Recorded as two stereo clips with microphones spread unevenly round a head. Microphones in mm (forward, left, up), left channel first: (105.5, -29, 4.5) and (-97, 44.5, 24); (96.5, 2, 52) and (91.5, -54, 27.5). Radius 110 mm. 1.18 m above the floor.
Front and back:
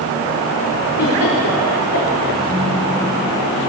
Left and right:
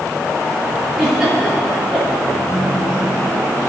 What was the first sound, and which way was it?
A giggle, 10° right.